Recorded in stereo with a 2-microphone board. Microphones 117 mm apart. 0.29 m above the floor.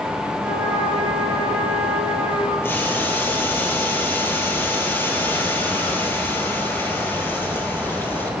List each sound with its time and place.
0.4 s a trumpet: 15° right (ahead or behind), 8 m
2.6 s boiling: 20° left (ahead or behind), 4 m